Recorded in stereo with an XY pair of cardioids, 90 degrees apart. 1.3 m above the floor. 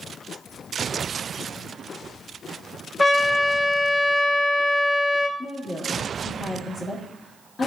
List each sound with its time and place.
3.0 s a trumpet: 30° left, 1.3 m
5.4 s a woman speaking: 45° left, 2 m